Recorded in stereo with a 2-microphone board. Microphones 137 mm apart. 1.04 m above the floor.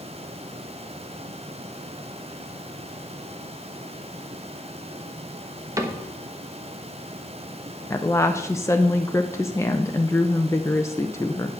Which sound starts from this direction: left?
A woman speaking, at 7.9 s.